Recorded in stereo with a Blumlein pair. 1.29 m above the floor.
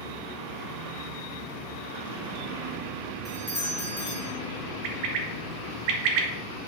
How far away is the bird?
About 1.5 m.